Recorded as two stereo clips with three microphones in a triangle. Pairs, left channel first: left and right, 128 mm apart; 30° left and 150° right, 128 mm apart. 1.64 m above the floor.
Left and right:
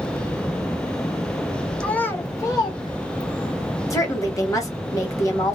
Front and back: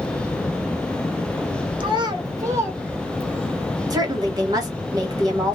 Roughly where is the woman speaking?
Behind left.